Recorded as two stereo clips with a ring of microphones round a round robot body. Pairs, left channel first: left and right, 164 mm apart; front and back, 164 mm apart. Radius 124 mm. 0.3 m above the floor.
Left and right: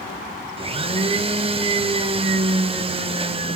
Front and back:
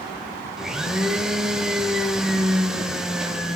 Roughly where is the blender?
Right.